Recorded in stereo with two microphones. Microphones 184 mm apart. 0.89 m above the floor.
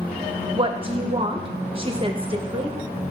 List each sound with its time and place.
0.5 s a woman speaking: 30° right (ahead or behind), 0.7 m